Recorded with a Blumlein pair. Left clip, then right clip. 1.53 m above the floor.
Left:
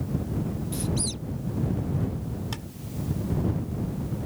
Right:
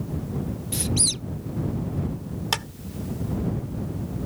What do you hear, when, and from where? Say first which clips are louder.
0.7 s a squeak: right 8 dB; 25° right
2.5 s a clap: right 17 dB; 55° right